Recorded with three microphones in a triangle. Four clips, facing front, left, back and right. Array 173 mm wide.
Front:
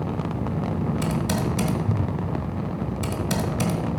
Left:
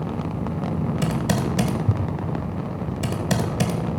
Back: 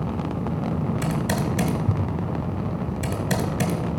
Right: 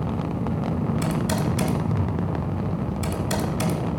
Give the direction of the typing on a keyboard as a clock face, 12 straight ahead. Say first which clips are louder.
Left 1 dB, even; 9 o'clock.